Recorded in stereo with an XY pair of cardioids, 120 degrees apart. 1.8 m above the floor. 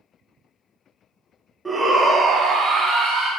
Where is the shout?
15° right, 0.6 m; by 3.3 s 80° right, 1.0 m.